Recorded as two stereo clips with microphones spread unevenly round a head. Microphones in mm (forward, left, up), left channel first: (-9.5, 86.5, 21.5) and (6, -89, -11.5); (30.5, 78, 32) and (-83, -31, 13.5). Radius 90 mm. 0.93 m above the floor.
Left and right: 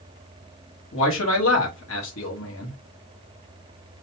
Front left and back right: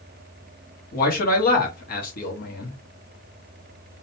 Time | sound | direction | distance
0.9 | a man speaking | 75° left | 1.4 m